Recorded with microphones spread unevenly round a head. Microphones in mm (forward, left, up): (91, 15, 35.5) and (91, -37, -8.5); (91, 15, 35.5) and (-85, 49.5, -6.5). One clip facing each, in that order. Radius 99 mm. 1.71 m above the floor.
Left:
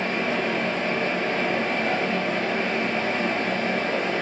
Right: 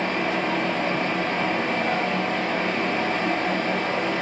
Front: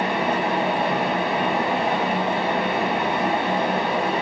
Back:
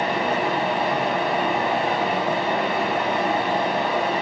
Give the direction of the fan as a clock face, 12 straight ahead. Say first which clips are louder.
Right 1 dB, even; 1 o'clock.